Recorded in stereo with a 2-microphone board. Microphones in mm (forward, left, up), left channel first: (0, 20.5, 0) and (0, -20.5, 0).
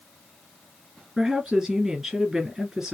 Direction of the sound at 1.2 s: 15° right (ahead or behind).